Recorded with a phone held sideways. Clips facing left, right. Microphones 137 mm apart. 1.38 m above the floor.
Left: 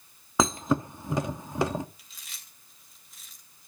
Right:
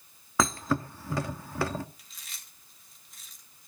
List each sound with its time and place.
0.4 s a thud: 20° left (ahead or behind), 1.0 m
2.0 s chewing: centre (ahead or behind), 2.5 m